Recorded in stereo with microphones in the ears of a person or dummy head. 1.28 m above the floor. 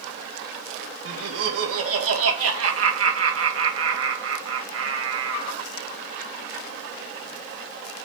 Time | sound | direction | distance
1.1 | laughter | 80° right | 2 m